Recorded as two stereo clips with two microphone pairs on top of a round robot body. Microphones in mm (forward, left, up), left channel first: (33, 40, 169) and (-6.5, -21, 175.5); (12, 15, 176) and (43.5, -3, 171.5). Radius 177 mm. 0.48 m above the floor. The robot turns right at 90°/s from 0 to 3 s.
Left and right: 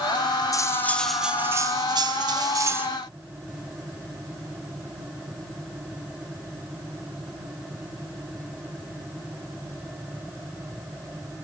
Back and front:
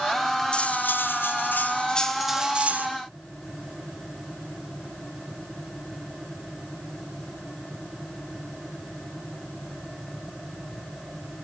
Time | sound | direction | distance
0.5 | cutlery clinking | 90° left | 2 m